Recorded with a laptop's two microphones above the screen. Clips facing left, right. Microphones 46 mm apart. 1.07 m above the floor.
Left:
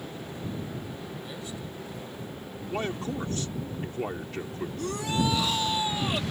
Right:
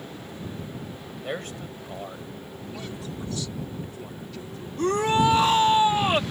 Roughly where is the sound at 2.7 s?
Left.